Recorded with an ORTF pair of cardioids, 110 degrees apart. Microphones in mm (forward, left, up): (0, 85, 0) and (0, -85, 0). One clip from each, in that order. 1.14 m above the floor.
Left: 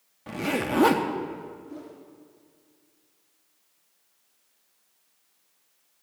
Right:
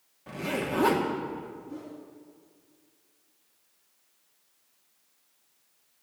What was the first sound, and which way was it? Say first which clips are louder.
A zipper: left 3 dB; 30° left.